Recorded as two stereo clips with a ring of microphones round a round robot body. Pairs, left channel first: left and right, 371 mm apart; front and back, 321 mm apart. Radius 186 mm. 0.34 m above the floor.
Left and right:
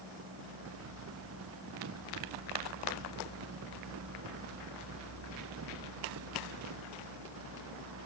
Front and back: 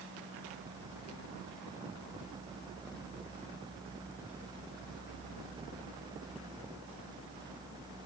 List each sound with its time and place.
Only background noise.